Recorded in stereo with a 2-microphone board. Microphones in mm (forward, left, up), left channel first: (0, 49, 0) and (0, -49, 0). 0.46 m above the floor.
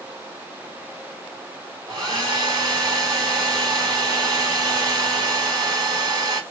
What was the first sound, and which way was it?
A hair dryer, 40° right (ahead or behind).